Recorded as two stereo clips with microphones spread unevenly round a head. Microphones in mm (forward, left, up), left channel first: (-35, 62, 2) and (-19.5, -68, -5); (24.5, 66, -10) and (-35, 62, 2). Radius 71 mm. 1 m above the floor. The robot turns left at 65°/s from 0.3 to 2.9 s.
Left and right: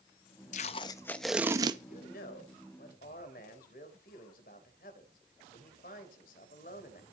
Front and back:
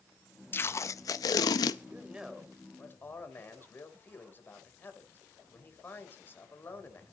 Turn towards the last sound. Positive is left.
turn(degrees=60)